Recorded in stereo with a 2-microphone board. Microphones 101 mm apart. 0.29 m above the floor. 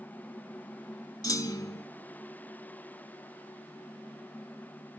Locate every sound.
1.2 s a clunk: 40° left (ahead or behind), 0.6 m